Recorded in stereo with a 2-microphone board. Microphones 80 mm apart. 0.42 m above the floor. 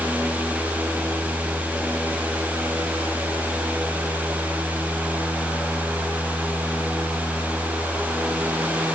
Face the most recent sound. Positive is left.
No sound to turn to.